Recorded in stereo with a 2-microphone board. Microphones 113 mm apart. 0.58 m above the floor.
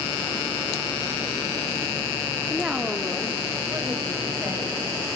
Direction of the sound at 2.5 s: Centre (ahead or behind).